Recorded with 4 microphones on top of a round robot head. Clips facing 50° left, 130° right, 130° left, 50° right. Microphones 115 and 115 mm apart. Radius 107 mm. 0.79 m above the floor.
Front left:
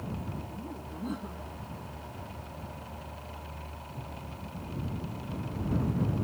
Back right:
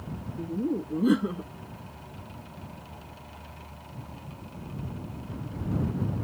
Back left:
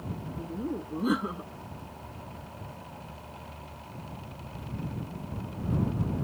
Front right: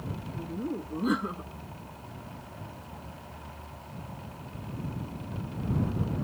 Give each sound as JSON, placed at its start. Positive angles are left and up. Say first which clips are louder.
{"t": 0.4, "sound": "laughter", "louder": "back right 12 dB, even", "azimuth_deg": -140}